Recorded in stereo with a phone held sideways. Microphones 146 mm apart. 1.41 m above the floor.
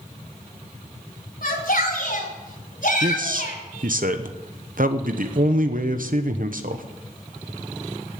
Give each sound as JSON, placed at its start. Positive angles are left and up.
{"t": 1.4, "sound": "a shout", "side_deg": 75, "distance_m": 4.0}
{"t": 3.0, "sound": "a man speaking", "side_deg": -70, "distance_m": 0.9}